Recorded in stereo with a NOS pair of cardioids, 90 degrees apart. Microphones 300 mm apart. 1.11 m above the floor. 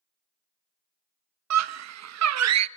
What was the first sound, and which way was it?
A scream, 60° right.